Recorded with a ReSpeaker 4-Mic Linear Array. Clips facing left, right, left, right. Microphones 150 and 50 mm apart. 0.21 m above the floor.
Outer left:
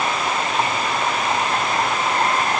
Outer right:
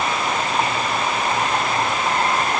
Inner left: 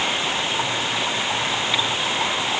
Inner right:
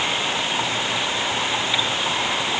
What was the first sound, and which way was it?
Only background noise.